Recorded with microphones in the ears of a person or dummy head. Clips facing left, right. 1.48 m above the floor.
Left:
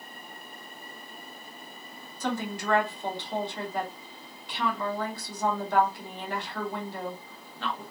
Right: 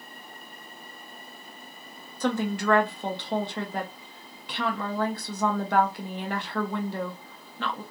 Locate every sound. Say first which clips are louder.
2.2 s a woman speaking: right 5 dB; 50° right (ahead or behind), 0.6 m